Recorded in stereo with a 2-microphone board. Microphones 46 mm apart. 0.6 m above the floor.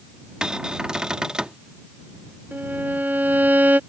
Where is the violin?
40° right (ahead or behind).